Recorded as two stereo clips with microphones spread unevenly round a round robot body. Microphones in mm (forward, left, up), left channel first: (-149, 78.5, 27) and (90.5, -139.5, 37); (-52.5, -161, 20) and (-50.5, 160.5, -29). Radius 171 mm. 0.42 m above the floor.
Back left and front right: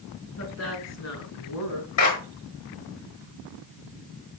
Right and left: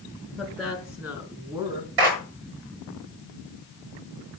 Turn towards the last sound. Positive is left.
turn(degrees=95)